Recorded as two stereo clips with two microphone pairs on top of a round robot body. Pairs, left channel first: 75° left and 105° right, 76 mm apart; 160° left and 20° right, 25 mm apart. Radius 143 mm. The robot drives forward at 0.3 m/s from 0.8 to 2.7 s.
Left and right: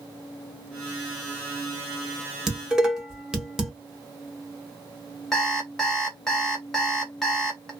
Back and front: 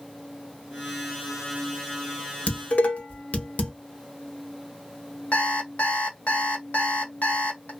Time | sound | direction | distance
2.5 | dishes clattering | 170° left | 0.9 m
5.3 | an alarm clock | 155° left | 1.1 m